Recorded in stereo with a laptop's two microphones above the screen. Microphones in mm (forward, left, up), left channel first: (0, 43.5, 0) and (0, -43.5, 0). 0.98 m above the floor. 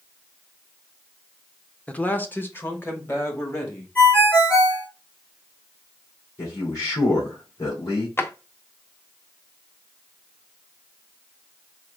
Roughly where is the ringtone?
Left.